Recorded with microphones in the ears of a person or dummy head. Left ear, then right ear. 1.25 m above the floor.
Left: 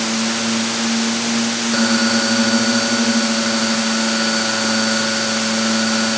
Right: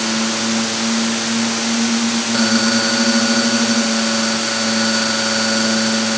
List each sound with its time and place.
Only background noise.